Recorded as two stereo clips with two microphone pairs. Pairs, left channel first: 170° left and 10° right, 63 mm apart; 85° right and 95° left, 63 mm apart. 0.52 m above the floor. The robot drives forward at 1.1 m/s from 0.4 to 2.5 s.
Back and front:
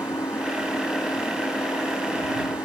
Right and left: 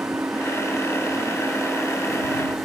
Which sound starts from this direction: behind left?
An engine running, at 0.0 s.